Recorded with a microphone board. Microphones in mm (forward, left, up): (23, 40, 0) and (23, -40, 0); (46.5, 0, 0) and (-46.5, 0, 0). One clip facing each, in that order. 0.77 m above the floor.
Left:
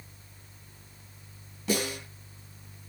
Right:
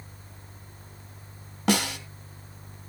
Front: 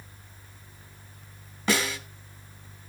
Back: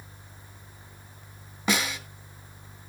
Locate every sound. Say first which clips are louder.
1.7 s a snare drum: right 4 dB, front 1 dB; 105° right, 3.5 m